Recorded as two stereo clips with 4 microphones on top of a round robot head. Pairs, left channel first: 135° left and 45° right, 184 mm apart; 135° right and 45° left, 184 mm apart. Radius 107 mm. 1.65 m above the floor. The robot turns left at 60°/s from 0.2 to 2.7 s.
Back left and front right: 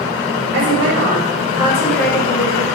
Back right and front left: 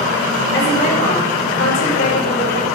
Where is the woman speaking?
55° right, 7 m; by 2.6 s straight behind, 7 m.